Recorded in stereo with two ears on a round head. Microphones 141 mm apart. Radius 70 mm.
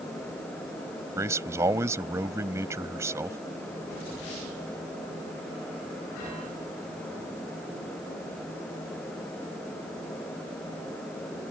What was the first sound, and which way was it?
A man speaking, 20° right (ahead or behind).